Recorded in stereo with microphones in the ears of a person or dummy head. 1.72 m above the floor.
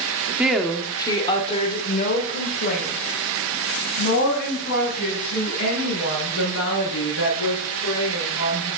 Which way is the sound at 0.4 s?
5° right (ahead or behind).